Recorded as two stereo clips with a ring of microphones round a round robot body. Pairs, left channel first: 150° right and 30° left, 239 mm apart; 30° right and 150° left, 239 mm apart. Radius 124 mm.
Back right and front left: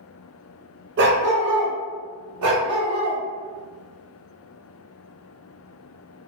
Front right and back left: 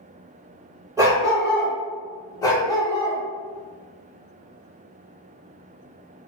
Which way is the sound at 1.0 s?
75° left.